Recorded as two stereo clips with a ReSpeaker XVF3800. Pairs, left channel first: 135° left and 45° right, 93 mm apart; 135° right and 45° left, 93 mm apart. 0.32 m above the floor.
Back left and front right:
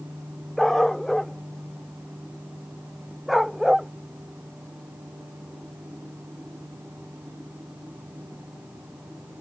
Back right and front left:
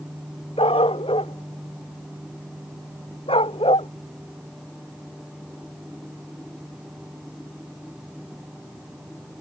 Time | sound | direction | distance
0.6 | a dog barking | 140° right | ?